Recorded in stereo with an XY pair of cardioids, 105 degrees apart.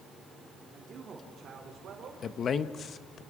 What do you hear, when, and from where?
0.7 s a man speaking: 40° right, 3 m; by 2.1 s 60° right, 4.5 m
2.2 s a man speaking: 50° left, 1.0 m